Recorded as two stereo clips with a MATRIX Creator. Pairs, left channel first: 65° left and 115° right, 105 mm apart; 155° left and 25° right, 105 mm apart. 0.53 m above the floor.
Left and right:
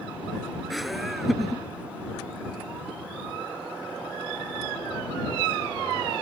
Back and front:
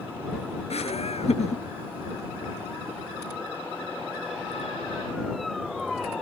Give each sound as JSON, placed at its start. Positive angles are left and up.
{"t": 0.7, "sound": "laughter", "azimuth_deg": 160}